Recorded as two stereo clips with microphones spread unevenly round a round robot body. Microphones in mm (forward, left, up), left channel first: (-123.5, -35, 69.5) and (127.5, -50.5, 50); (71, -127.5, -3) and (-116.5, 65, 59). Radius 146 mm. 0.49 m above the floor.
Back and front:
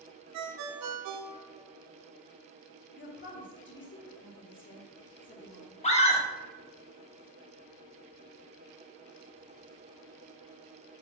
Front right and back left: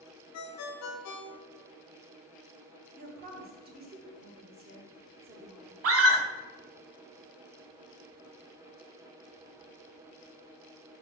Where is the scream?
120° left, 0.9 m.